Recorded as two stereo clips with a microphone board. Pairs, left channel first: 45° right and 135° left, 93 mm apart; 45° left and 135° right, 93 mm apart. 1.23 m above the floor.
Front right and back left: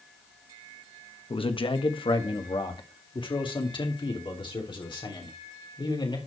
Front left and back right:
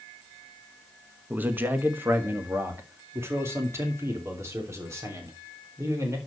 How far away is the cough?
I don't hear a cough.